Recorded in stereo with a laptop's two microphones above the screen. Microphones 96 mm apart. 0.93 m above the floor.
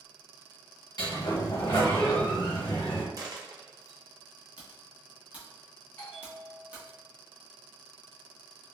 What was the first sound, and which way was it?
A sliding door, 45° left (ahead or behind).